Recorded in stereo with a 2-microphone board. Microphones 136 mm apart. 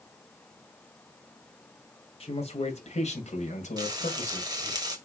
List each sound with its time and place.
2.2 s a man speaking: 45° left (ahead or behind), 2.5 m; by 4.8 s 60° left (ahead or behind), 2.5 m
3.8 s frying: 25° right (ahead or behind), 1.7 m